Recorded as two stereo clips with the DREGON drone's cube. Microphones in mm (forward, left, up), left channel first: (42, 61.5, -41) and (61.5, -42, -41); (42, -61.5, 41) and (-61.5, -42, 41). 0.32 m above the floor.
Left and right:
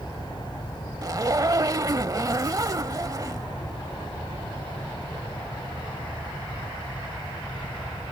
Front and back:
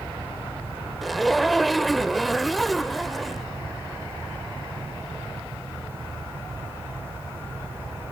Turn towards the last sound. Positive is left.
turn(degrees=-100)